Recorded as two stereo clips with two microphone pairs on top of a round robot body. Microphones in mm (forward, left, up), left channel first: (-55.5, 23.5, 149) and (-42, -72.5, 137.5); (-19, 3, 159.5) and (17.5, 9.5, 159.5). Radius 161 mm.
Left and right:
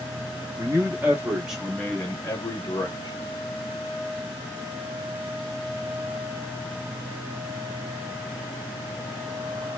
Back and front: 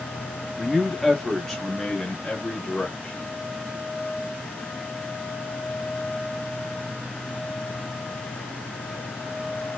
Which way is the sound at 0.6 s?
80° right.